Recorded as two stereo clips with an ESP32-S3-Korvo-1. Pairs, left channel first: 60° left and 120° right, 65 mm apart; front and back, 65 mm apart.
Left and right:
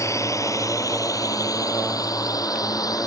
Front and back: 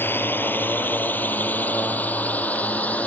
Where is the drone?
45° left; by 3.1 s 65° left.